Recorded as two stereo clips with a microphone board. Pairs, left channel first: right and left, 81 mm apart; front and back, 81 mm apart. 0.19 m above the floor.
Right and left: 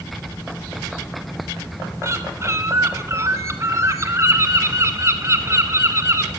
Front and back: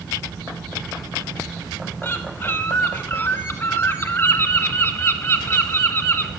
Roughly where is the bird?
Ahead left.